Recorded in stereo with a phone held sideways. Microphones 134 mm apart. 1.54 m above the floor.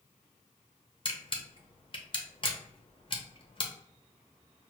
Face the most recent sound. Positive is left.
turn(degrees=40)  # may be behind; listen again after turning